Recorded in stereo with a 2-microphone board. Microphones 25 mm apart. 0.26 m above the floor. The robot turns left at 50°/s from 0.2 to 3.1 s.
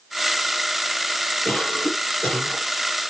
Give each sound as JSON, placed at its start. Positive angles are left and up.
{"t": 1.4, "sound": "a cough", "azimuth_deg": 120, "distance_m": 6.0}